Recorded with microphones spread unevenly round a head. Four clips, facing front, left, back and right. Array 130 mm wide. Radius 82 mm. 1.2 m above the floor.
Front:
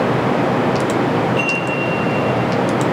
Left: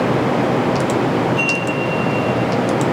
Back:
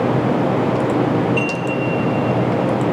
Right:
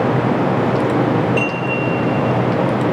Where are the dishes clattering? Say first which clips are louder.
Right 1 dB, front 1 dB; 135° right, 6.5 m.